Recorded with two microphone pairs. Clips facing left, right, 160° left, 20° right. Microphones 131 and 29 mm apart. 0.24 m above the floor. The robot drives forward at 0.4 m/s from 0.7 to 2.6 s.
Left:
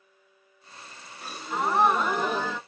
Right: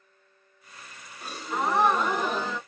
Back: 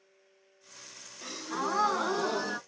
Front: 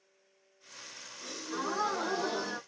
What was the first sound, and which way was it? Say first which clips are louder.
A gasp: even, back 3 dB; 175° left.